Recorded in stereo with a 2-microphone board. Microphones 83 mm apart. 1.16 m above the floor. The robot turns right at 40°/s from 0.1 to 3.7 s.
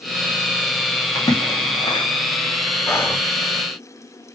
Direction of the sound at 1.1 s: 40° left (ahead or behind).